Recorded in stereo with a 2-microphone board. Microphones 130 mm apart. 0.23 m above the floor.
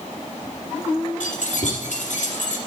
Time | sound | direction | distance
1.2 | keys jangling | 75° left (ahead or behind) | 4.5 m